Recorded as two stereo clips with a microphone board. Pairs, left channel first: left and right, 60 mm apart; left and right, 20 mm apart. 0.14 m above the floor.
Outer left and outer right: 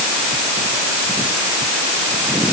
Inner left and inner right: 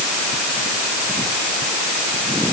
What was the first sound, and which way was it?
Only background noise.